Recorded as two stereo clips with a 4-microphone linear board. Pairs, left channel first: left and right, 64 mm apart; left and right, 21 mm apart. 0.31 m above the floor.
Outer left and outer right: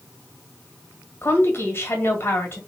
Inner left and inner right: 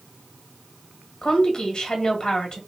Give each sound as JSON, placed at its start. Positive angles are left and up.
{"t": 1.2, "sound": "a woman speaking", "side_deg": 35, "distance_m": 1.4}